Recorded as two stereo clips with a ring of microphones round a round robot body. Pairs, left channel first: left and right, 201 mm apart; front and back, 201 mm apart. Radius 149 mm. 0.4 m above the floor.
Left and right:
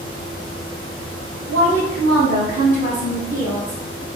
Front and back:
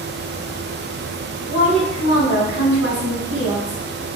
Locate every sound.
1.5 s a woman speaking: 145° right, 2.0 m; by 4.0 s 170° right, 3.5 m